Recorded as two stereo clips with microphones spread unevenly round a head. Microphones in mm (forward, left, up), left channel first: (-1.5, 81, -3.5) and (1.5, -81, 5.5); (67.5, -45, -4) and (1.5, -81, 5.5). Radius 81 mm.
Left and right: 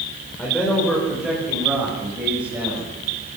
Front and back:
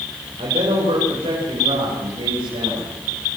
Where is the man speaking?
175° left, 5 m; by 3.0 s 170° right, 9 m.